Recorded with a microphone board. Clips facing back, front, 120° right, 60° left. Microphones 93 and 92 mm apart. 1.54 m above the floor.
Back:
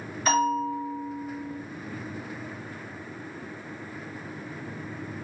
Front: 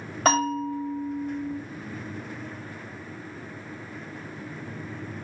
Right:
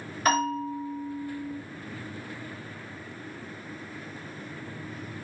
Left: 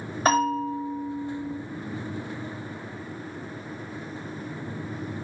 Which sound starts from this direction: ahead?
A bell, at 0.2 s.